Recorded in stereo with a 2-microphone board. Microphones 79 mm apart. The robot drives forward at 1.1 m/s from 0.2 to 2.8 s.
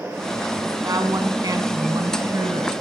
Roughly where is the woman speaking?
Right.